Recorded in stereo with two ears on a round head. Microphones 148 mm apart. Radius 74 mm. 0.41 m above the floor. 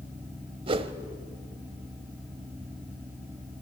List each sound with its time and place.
0.7 s a whoosh: 35° right (ahead or behind), 1.1 m